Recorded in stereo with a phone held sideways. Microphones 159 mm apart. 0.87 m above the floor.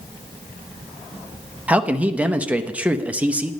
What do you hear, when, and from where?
1.7 s a man speaking: 10° right (ahead or behind), 0.6 m